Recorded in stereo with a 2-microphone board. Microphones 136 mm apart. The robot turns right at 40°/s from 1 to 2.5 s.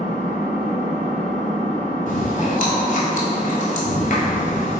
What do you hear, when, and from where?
0.0 s an engine running: 15° right, 1.1 m; by 4.8 s 45° left, 1.1 m
2.1 s chewing: 75° left (ahead or behind), 0.8 m; by 4.8 s 70° left (ahead or behind), 0.8 m